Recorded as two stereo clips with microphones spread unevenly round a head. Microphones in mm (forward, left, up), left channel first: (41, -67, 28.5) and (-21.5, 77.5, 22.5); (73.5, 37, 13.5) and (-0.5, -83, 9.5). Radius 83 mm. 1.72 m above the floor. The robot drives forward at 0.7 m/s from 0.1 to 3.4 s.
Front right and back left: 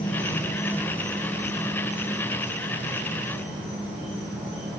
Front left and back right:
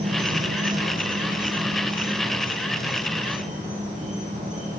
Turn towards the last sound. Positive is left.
turn(degrees=-170)